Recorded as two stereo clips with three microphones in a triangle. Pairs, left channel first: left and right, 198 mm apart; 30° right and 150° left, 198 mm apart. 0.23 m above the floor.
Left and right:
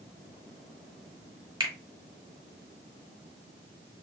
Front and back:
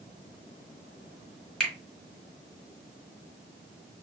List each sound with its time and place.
1.6 s a finger snap: 115° right, 1.3 m